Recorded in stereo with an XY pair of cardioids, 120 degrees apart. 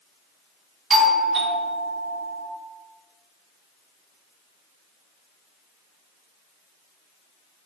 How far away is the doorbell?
About 3.5 m.